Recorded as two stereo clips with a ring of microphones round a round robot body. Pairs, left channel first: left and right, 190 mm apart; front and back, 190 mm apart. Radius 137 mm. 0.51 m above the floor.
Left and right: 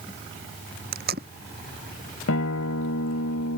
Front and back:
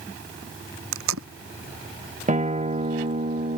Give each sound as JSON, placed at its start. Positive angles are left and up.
{"t": 0.9, "sound": "tape being pulled", "azimuth_deg": -150}
{"t": 2.3, "sound": "a guitar", "azimuth_deg": 125}